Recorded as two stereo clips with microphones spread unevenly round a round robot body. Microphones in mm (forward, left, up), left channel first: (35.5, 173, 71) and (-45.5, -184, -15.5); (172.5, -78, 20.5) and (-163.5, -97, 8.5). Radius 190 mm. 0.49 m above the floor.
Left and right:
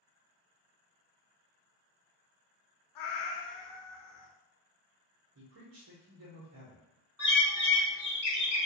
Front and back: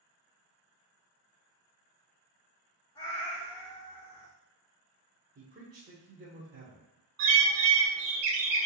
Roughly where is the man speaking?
Behind right.